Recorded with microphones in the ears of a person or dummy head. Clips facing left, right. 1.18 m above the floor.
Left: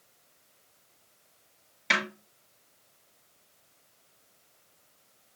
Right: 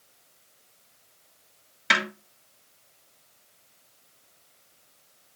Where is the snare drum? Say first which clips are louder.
Right 3 dB; 10° right (ahead or behind), 3 m.